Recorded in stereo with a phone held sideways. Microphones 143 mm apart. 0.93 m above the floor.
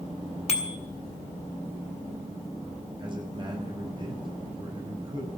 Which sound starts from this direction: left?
A bicycle bell, at 0.5 s.